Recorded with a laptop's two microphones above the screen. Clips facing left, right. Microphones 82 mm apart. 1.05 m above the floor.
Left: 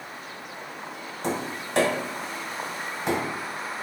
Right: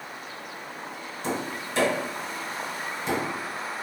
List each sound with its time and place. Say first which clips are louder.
1.2 s tapping: left 1 dB; 65° left (ahead or behind), 1.7 m